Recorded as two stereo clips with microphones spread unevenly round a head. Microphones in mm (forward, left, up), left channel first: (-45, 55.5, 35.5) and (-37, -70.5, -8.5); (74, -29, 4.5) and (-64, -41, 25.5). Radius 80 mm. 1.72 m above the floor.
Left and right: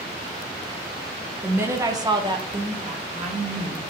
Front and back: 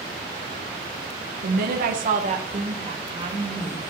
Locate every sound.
1.4 s a woman speaking: 165° right, 1.0 m; by 3.8 s 115° right, 1.9 m